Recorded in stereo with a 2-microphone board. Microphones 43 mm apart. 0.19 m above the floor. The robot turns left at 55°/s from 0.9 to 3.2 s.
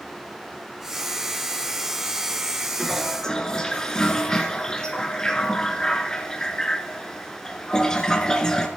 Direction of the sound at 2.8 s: 5° right (ahead or behind).